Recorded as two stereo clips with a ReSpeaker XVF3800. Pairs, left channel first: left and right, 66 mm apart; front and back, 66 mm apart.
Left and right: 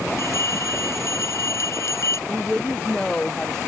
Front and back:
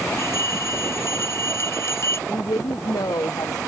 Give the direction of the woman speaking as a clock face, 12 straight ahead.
12 o'clock.